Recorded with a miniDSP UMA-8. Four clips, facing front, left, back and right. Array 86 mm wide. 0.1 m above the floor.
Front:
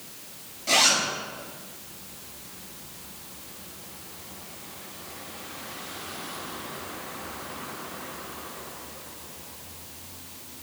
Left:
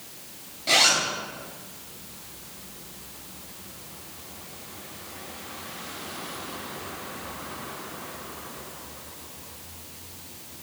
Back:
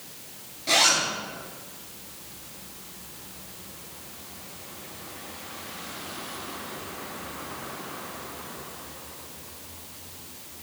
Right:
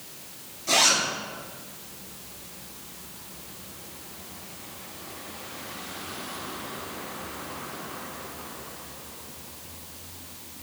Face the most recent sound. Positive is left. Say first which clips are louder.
# left 1 dB, even
turn(degrees=120)